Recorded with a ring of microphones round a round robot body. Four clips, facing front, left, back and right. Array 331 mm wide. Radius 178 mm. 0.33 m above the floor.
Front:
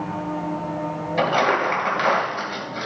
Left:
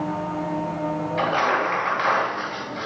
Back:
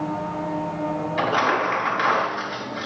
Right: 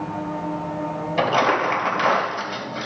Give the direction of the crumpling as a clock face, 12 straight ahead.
2 o'clock.